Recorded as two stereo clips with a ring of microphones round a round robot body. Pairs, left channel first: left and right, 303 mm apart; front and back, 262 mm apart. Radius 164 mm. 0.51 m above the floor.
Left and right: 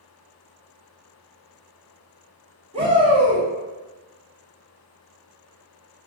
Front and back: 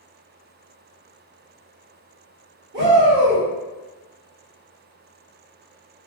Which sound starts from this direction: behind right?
A shout, at 2.7 s.